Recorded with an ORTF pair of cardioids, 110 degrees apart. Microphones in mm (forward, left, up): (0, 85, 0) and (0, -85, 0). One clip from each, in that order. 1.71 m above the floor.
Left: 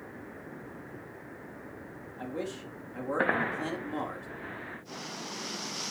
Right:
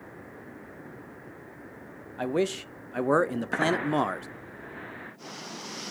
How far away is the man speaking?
About 0.7 m.